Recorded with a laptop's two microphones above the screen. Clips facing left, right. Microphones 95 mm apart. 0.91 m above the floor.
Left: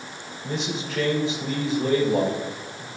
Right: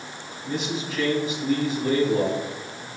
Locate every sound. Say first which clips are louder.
0.4 s a man speaking: right 1 dB; 80° left, 3 m